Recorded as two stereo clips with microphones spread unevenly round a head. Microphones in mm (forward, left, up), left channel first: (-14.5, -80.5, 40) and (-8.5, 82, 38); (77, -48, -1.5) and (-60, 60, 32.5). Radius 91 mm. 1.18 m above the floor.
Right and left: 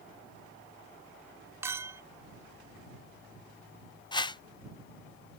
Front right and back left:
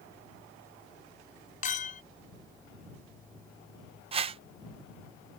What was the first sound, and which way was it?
A clink, 10° left.